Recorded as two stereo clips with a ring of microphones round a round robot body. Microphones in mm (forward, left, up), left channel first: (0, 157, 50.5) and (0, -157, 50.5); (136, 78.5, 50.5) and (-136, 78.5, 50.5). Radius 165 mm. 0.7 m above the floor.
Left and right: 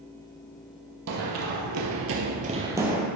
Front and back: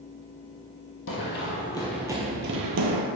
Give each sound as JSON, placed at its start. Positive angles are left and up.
{"t": 1.1, "sound": "running footsteps", "azimuth_deg": -50, "distance_m": 1.4}